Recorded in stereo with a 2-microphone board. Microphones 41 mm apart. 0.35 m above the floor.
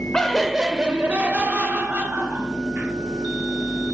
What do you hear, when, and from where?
0.1 s laughter: 15° left (ahead or behind), 0.9 m; by 2.9 s 65° right (ahead or behind), 2 m